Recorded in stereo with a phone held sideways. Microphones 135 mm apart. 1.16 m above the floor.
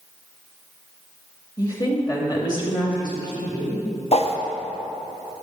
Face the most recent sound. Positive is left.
turn(degrees=50)  # may be behind; listen again after turning